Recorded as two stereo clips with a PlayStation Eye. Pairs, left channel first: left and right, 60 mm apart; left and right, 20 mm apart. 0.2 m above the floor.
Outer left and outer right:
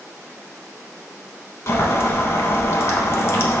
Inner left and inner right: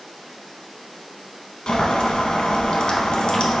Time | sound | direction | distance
1.7 | boiling | 50° left (ahead or behind) | 0.7 m